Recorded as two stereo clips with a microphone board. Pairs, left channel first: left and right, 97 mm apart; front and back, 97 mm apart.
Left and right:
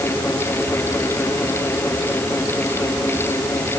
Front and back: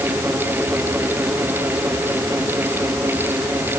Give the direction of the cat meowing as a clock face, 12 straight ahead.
No cat meowing in this recording.